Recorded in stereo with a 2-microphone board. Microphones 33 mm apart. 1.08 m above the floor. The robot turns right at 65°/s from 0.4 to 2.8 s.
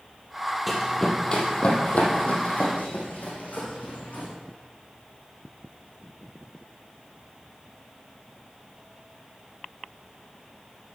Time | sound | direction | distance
0.7 | running footsteps | centre (ahead or behind) | 1.6 m